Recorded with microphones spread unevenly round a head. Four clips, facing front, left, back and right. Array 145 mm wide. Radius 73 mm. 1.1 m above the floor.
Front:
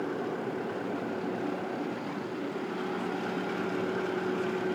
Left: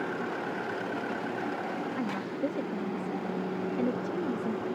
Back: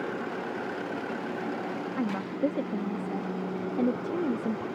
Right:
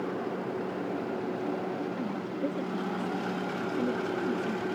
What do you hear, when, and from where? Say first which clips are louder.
2.0 s a woman speaking: left 1 dB, back 6 dB; 175° left